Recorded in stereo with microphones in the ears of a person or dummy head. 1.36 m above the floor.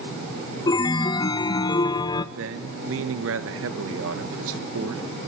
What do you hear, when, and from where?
0.7 s a chime: 15° left (ahead or behind), 0.8 m
2.4 s a man speaking: 70° right (ahead or behind), 1.6 m